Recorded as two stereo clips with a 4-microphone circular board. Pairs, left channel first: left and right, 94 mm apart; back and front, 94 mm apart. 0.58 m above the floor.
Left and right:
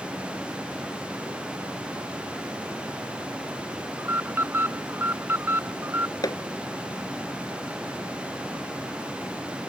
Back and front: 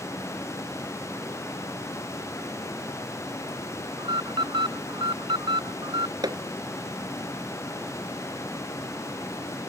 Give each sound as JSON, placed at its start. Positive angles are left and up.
{"t": 4.0, "sound": "an alarm", "azimuth_deg": -25}
{"t": 6.2, "sound": "hammering", "azimuth_deg": 45}